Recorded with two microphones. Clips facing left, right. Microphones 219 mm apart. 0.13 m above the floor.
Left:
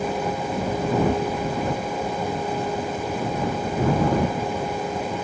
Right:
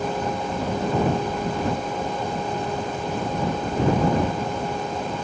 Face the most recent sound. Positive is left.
No sound to turn to.